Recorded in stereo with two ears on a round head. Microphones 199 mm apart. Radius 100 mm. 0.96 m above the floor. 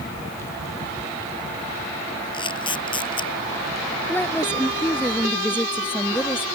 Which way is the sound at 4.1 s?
10° left (ahead or behind).